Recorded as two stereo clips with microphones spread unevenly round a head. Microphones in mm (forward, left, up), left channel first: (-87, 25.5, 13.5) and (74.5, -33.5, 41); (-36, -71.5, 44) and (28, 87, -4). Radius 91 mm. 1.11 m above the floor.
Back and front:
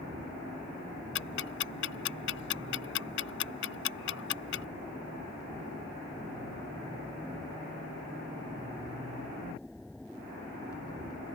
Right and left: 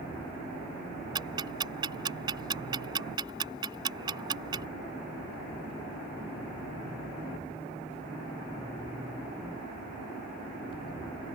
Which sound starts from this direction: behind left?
Ticking, at 1.1 s.